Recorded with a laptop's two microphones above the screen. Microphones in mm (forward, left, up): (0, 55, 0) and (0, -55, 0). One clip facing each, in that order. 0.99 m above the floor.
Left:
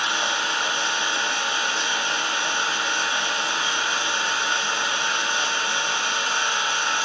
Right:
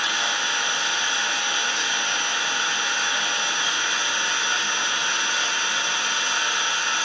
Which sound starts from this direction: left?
An engine running, at 0.0 s.